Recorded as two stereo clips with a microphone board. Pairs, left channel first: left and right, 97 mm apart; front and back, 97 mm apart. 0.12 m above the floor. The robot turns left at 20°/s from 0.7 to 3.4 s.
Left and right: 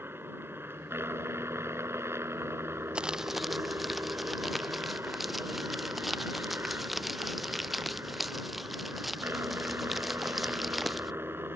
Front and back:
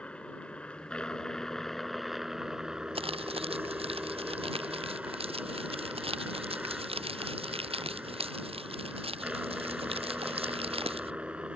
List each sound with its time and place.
0.0 s a helicopter: 65° right; by 11.6 s 115° right
3.0 s crumpling: 170° right; by 11.1 s straight behind